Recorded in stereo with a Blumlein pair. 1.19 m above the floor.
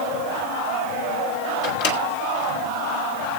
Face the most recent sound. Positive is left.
turn(degrees=45)